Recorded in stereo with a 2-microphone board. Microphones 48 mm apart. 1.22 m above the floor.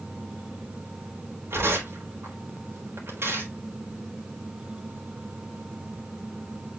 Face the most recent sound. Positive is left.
turn(degrees=-60)  # may be behind; listen again after turning